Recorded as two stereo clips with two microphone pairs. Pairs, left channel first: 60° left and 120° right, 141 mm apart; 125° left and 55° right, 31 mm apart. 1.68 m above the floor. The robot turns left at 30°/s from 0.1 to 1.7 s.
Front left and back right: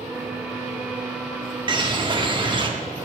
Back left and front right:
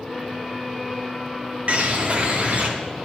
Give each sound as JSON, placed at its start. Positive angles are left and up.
{"t": 1.7, "sound": "a bird", "azimuth_deg": -80, "distance_m": 1.6}